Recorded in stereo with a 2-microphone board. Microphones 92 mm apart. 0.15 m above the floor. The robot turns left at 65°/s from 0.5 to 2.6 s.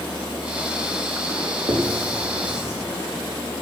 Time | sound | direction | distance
1.7 | writing | 75° right (ahead or behind) | 3 m